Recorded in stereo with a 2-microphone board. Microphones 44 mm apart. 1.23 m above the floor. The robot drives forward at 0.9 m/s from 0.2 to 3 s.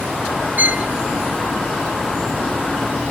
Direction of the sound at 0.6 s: 40° right (ahead or behind).